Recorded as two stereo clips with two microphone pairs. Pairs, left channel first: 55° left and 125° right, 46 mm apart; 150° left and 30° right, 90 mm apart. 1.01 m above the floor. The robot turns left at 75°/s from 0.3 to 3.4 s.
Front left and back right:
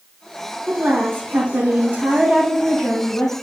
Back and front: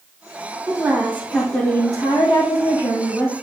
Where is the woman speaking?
95° right, 1.6 m; by 3.4 s 65° left, 1.6 m.